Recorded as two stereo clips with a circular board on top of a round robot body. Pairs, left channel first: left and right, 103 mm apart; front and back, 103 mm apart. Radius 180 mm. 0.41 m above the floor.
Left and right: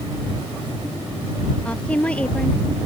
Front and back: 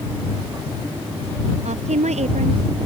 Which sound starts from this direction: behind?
A woman speaking, at 1.6 s.